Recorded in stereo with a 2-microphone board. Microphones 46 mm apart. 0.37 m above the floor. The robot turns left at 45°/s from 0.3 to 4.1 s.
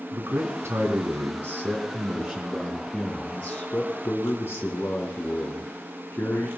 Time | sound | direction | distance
0.1 | a man speaking | 65° right | 3 m